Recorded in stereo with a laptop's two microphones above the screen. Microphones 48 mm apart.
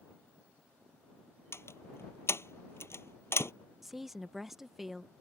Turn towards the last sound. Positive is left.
turn(degrees=-5)  # may be behind; listen again after turning